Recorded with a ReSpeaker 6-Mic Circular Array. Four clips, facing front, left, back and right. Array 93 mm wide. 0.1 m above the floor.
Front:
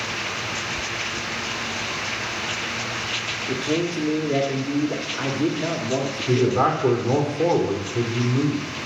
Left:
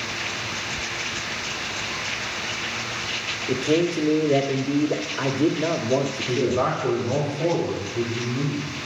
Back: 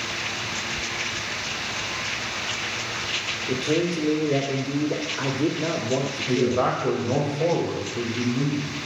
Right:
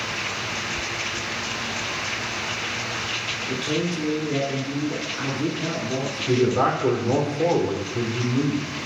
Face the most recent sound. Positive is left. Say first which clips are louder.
# right 4 dB, front 3 dB
turn(degrees=-35)